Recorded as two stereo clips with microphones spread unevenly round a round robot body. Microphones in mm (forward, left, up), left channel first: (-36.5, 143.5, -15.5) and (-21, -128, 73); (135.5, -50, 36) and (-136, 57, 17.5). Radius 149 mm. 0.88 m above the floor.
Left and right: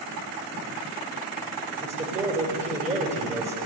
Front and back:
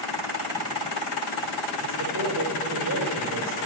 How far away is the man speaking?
About 4.5 m.